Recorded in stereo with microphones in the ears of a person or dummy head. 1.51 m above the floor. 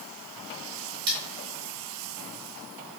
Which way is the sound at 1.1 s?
25° right (ahead or behind).